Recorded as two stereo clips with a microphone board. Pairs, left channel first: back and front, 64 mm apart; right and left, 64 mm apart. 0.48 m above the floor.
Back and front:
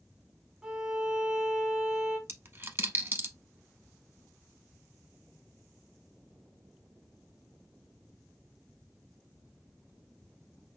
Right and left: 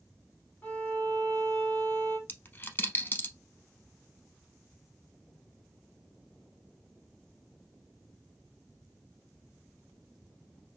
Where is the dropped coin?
40° right, 0.5 m.